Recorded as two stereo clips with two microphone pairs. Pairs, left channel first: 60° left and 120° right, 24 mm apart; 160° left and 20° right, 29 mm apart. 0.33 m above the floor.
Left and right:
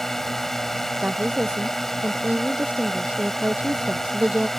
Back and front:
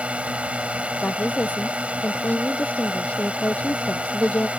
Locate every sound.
0.0 s a drone: 15° right
1.0 s a woman speaking: 155° right